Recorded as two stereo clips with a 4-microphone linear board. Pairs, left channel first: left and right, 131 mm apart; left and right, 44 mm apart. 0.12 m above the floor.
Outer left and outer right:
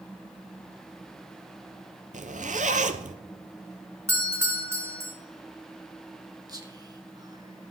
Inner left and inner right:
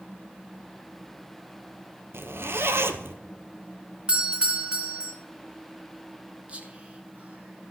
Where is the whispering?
30° right (ahead or behind), 1.2 m.